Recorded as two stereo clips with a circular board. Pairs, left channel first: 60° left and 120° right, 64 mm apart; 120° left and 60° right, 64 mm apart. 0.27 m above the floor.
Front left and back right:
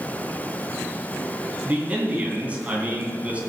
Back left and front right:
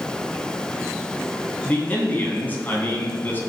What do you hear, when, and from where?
1.6 s a man speaking: 175° left, 3 m